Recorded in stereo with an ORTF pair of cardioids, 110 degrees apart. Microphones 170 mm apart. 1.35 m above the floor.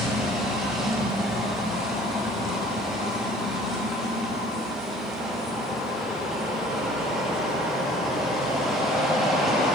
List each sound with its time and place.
0.0 s a machine running: straight ahead, 1.3 m